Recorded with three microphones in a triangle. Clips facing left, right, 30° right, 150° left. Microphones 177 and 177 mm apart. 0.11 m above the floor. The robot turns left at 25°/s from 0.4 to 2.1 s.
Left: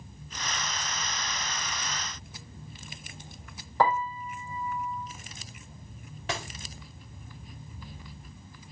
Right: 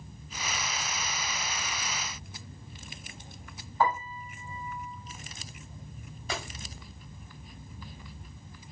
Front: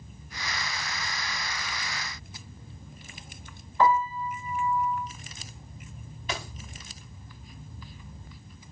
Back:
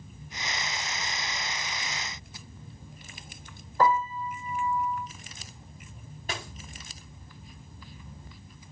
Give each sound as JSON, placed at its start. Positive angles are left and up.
{"t": 3.8, "sound": "a piano", "azimuth_deg": 100, "distance_m": 5.5}
{"t": 6.3, "sound": "a dropped coin", "azimuth_deg": 105, "distance_m": 5.5}